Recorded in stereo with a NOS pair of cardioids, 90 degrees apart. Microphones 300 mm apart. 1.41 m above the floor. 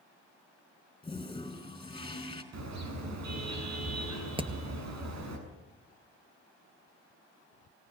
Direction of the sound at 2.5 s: 65° right.